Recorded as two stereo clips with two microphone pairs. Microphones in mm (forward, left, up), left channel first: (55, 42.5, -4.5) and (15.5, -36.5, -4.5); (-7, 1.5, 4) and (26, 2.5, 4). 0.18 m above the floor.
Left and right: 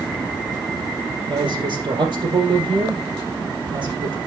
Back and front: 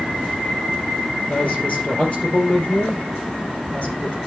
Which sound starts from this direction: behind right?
A woman speaking, at 1.3 s.